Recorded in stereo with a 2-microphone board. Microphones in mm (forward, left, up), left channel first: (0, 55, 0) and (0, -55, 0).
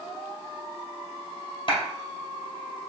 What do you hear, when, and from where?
1.7 s a clap: 45° left (ahead or behind), 2 m